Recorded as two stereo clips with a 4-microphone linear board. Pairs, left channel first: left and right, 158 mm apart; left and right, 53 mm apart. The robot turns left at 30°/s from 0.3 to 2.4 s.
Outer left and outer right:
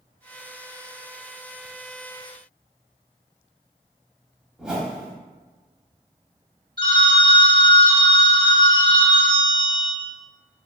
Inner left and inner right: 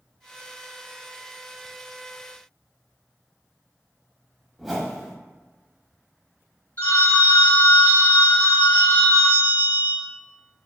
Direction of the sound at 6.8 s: 30° left (ahead or behind).